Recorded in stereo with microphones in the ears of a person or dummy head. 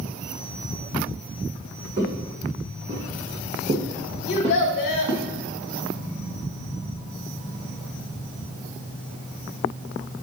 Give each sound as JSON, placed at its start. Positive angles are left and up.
{"t": 2.0, "sound": "footsteps", "side_deg": -20, "distance_m": 1.8}
{"t": 4.3, "sound": "a child speaking", "side_deg": 50, "distance_m": 1.0}